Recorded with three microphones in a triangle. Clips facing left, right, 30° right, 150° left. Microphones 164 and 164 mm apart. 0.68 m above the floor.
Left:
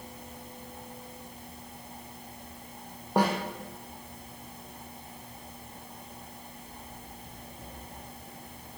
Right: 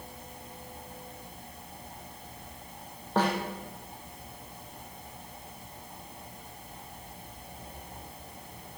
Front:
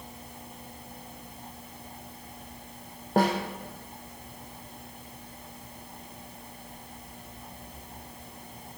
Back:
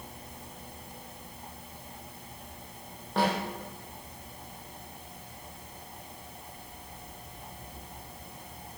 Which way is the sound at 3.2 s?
15° left.